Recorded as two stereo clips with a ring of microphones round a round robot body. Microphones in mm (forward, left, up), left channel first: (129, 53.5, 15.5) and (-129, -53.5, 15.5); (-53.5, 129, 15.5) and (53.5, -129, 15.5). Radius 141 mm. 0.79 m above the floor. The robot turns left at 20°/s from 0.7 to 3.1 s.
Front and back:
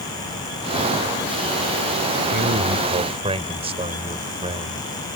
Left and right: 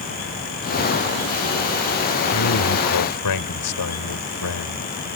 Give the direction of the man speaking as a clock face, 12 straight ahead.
7 o'clock.